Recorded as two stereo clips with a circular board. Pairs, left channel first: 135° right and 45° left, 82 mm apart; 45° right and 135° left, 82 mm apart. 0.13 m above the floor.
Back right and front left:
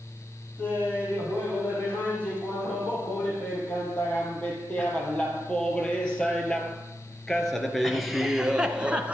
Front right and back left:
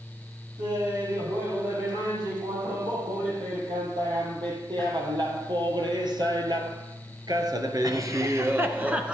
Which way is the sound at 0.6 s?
155° left.